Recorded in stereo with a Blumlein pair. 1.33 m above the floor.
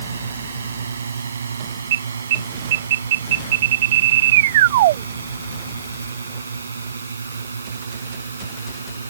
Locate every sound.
0.0 s a drone: 70° right
1.9 s an alarm: 55° right